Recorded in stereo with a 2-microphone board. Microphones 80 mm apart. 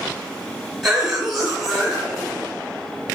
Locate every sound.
0.8 s a cough: centre (ahead or behind), 1.6 m